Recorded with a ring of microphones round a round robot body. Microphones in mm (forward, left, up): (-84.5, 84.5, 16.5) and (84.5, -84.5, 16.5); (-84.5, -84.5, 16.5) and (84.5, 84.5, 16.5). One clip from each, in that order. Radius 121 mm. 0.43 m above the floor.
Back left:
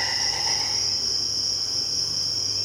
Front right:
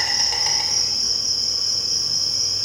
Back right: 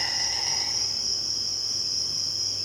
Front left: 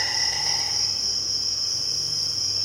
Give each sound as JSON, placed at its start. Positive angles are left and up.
{"t": 0.0, "sound": "an insect", "azimuth_deg": -35, "distance_m": 0.7}